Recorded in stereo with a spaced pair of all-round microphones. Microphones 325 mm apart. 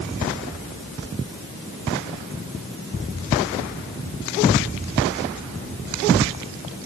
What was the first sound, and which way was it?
Only background noise.